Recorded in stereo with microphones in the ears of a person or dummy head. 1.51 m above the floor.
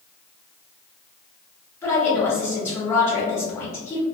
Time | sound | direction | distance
1.8 | a woman speaking | 15° left (ahead or behind) | 1.6 m